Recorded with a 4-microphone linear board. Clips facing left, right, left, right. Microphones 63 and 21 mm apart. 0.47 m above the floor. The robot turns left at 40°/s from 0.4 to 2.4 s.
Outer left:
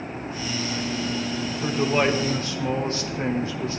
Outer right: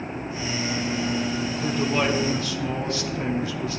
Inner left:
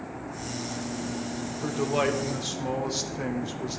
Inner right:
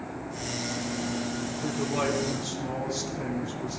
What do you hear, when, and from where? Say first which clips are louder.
1.6 s a man speaking: outer left 2 dB, inner left 3 dB; 115° left, 1.0 m; by 3.8 s 85° left, 1.0 m